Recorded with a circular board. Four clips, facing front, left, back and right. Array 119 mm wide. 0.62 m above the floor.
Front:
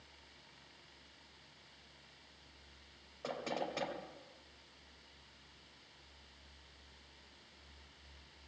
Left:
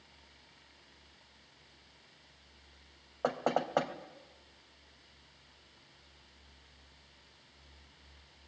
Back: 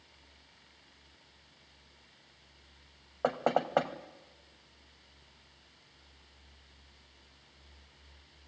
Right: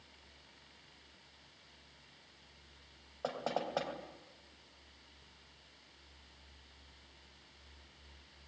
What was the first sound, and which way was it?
Knocking, 155° left.